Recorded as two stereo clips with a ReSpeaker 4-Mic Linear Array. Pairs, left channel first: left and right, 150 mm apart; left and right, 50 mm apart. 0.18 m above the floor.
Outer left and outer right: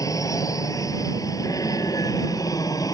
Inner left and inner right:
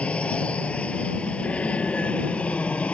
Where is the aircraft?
20° left (ahead or behind); by 2.9 s 25° left (ahead or behind).